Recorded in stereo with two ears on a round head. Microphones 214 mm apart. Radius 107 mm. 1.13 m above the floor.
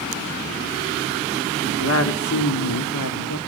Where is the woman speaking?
50° left (ahead or behind), 2 m; by 3.4 s 80° left, 2 m.